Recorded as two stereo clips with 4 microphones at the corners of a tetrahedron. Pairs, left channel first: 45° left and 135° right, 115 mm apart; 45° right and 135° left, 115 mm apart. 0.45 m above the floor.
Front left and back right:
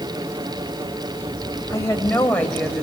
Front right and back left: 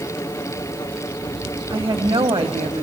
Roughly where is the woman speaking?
Left.